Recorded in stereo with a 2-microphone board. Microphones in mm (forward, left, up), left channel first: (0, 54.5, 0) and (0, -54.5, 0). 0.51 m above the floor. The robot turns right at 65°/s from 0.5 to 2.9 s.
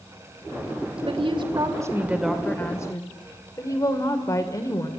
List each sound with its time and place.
1.1 s a woman speaking: 85° right, 2 m; by 4.9 s 35° left, 2 m